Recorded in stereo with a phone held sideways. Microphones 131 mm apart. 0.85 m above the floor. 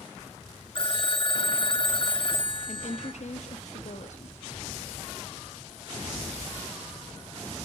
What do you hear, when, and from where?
0.8 s a phone ringing: 40° left (ahead or behind), 0.6 m
2.7 s a woman speaking: 60° left (ahead or behind), 1.4 m